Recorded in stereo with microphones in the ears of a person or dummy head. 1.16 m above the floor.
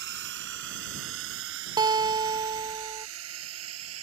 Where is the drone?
60° right (ahead or behind); by 4.0 s 80° right.